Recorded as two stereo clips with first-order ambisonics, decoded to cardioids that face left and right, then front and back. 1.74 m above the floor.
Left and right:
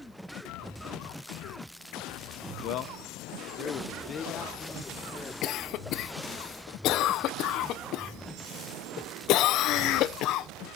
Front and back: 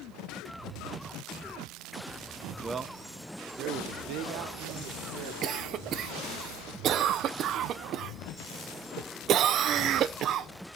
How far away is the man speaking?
About 0.8 m.